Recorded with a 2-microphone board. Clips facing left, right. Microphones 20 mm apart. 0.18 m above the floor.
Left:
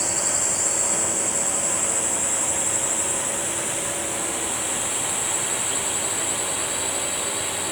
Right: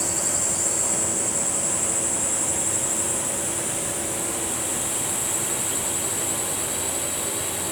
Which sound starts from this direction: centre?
A drone, at 0.0 s.